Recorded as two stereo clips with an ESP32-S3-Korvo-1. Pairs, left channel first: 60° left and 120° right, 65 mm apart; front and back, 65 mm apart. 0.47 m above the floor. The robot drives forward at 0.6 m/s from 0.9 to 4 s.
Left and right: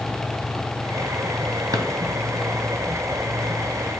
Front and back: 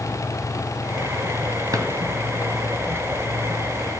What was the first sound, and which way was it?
A drawer, 145° right.